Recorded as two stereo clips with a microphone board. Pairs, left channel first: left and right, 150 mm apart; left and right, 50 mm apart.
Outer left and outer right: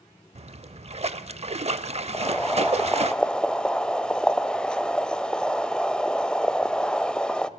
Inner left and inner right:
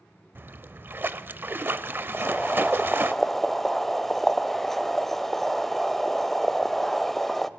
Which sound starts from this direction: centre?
Boiling, at 2.1 s.